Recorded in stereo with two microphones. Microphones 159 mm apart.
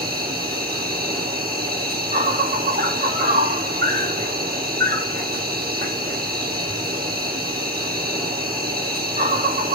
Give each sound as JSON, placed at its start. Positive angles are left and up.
{"t": 0.0, "sound": "an insect", "side_deg": -80, "distance_m": 3.0}